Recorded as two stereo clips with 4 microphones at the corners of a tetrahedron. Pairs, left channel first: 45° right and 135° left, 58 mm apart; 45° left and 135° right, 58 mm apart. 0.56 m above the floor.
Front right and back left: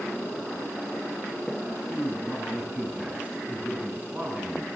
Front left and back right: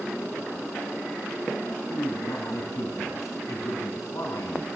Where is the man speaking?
75° left, 5 m.